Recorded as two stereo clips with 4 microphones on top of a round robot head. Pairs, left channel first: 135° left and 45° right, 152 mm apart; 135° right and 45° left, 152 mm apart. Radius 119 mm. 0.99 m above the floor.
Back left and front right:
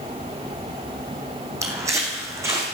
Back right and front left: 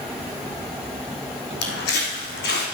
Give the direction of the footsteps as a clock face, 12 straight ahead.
4 o'clock.